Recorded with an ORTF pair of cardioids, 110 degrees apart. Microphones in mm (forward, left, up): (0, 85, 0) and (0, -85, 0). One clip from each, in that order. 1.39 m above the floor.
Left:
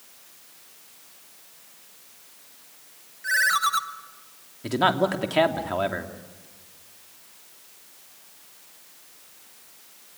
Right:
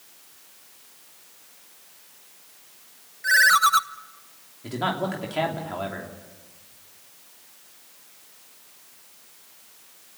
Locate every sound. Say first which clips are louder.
3.2 s a ringtone: right 5 dB; 30° right, 0.9 m
4.6 s a man speaking: left 5 dB; 35° left, 3 m